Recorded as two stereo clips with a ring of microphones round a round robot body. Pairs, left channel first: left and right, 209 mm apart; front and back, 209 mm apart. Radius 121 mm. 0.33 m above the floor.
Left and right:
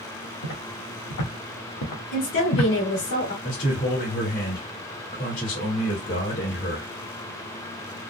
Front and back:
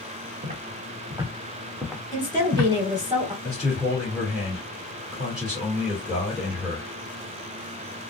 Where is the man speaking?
95° left, 1.9 m.